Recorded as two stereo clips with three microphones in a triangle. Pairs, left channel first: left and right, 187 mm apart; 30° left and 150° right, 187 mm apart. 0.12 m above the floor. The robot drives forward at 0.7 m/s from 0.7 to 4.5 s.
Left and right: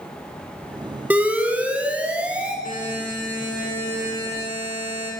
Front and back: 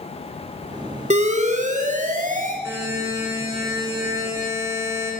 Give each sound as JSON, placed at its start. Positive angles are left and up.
{"t": 1.1, "sound": "an alarm", "azimuth_deg": -170, "distance_m": 3.0}
{"t": 2.6, "sound": "a buzzer", "azimuth_deg": 135, "distance_m": 9.5}